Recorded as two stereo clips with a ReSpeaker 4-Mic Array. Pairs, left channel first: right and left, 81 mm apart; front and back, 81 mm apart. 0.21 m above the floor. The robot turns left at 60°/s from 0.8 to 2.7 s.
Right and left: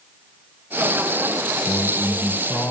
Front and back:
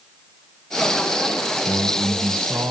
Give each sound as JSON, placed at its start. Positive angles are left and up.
{"t": 1.7, "sound": "a man speaking", "azimuth_deg": -90, "distance_m": 1.8}